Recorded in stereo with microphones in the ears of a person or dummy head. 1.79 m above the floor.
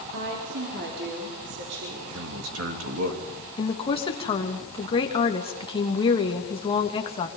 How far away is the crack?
I don't hear a crack.